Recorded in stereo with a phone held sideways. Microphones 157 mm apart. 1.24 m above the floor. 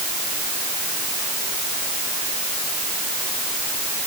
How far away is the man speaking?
I don't hear a man speaking.